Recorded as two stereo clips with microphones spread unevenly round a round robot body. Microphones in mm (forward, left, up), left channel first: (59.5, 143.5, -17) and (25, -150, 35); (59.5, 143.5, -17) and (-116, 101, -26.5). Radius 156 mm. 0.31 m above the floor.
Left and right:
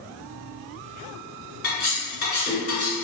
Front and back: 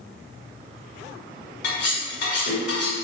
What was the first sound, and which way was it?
Cutlery clinking, 25° left.